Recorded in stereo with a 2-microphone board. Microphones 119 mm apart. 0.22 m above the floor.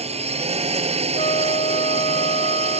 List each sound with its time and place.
0.0 s a drone: 70° right (ahead or behind)
1.1 s a flute: 75° left (ahead or behind)